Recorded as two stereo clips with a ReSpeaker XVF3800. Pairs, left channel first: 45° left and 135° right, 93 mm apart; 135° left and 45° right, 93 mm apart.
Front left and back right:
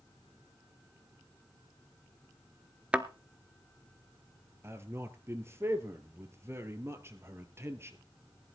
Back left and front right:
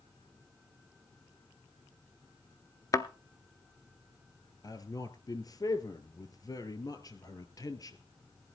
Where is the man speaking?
170° left, 1.7 m.